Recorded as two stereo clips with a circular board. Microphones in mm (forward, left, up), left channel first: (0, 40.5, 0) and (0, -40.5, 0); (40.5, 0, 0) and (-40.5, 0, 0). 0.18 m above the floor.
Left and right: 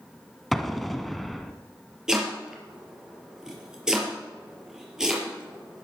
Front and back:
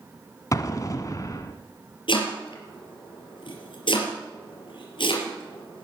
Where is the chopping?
10° right, 4 m.